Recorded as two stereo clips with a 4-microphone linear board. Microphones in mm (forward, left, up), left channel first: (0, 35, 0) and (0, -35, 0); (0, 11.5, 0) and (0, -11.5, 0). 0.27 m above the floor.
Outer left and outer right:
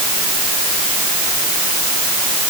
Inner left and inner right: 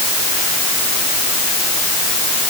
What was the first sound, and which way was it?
Only background noise.